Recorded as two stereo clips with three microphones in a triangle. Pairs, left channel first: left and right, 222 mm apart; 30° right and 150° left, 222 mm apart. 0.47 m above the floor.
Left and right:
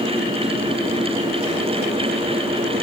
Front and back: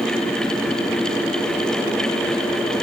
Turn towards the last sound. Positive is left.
No sound to turn to.